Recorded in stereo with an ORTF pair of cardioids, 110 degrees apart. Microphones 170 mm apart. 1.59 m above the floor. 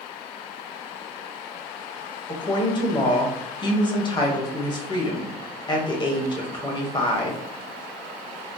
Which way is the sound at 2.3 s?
30° left.